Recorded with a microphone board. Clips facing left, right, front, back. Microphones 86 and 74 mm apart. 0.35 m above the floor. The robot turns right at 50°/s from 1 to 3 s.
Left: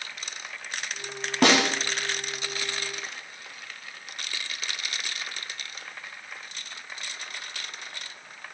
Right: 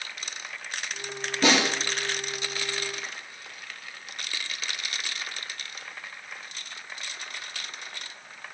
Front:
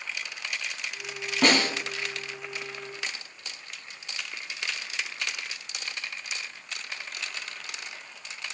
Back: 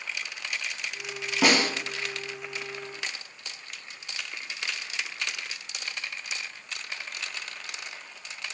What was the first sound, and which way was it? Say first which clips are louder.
A snare drum: left 2 dB, even; 95° left.